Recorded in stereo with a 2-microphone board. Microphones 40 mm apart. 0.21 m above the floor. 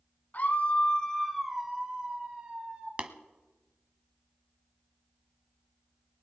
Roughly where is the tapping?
Right.